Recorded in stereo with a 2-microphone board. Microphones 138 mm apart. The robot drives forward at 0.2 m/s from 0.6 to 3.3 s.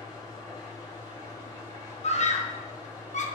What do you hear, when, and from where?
0.0 s an engine running: 25° left (ahead or behind), 1.5 m; by 3.4 s 20° left (ahead or behind), 2.0 m
2.0 s a scream: 50° left (ahead or behind), 0.8 m; by 3.3 s 60° left (ahead or behind), 0.7 m